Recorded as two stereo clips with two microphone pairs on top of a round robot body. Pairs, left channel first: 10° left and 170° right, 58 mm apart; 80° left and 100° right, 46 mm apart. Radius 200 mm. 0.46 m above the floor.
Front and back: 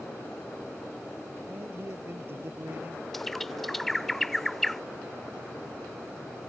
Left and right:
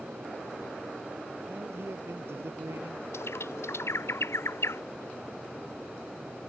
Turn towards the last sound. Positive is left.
turn(degrees=95)